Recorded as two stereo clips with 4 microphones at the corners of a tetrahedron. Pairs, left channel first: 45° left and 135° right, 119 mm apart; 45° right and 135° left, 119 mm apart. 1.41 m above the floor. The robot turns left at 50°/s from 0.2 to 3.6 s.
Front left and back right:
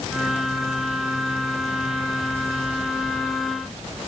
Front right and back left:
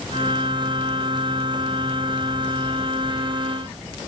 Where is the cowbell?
I don't hear a cowbell.